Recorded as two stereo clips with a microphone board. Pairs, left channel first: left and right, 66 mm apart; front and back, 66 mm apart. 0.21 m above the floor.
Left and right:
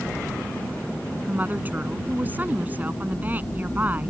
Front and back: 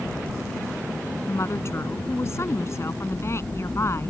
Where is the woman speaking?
30° right.